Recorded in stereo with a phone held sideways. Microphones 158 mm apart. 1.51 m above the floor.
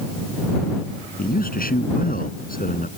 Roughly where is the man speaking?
Left.